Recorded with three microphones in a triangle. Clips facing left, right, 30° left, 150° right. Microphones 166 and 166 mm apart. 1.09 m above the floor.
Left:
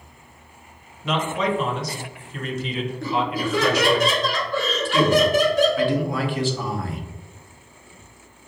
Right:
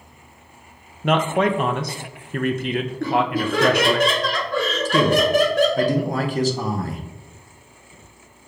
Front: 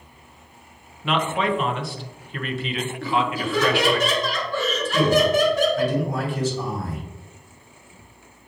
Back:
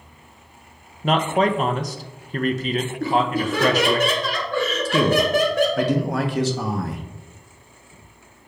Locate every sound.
1.0 s a man speaking: 105° right, 0.5 m
3.0 s laughter: 120° right, 1.8 m
4.8 s a man speaking: 140° right, 0.8 m